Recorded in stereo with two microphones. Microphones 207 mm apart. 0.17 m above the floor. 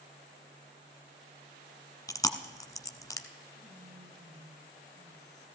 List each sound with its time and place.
2.1 s chewing: 20° left (ahead or behind), 0.7 m
3.5 s whispering: 60° right (ahead or behind), 2.5 m